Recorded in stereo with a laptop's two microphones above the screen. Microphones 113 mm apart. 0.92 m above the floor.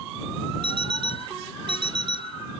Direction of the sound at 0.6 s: 45° right (ahead or behind).